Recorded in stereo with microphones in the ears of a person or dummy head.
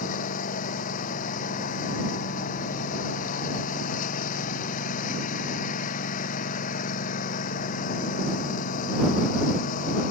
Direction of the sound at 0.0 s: 45° left (ahead or behind).